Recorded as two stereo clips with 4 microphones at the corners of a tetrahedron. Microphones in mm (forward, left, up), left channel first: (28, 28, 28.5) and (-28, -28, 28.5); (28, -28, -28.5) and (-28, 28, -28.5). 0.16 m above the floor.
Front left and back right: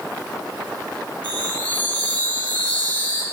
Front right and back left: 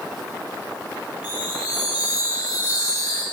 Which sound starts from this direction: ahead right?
A chime, at 1.2 s.